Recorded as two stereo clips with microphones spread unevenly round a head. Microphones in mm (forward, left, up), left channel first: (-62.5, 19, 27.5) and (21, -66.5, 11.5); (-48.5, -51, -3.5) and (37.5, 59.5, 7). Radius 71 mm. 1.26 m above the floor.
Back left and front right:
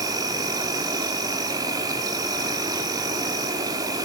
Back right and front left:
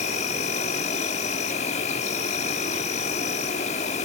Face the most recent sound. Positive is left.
turn(degrees=-100)